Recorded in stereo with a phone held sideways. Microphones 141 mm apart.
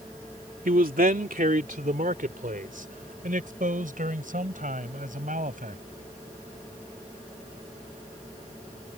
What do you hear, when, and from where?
0.7 s a man speaking: 85° right; by 5.8 s 70° right (ahead or behind)